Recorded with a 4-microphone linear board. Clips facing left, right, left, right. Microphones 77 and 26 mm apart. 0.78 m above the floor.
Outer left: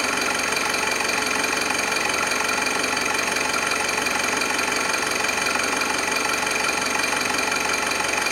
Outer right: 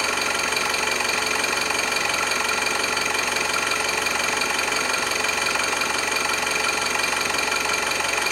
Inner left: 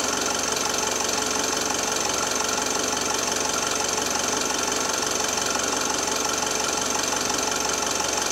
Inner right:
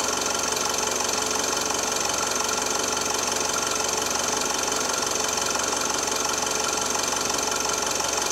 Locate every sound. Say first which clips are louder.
0.0 s an engine running: outer left 1 dB, inner left 1 dB; 10° left (ahead or behind), 1.2 m